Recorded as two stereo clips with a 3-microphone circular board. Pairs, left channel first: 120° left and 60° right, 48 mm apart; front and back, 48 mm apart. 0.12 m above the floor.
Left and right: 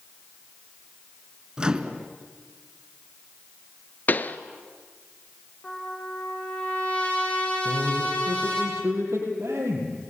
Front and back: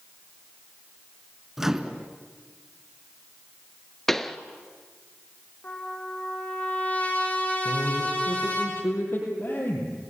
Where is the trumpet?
60° left, 4.5 m.